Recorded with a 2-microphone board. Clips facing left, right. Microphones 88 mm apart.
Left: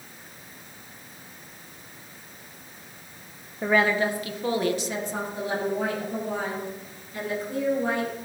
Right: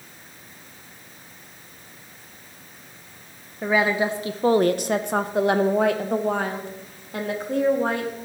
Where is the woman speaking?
Centre (ahead or behind), 0.7 m; by 8.1 s 60° right (ahead or behind), 2 m.